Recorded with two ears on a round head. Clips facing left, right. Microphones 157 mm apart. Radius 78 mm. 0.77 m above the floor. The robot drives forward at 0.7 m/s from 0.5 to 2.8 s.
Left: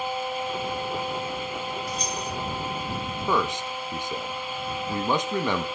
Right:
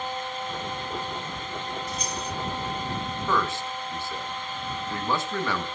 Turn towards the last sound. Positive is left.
turn(degrees=15)  # may be behind; listen again after turning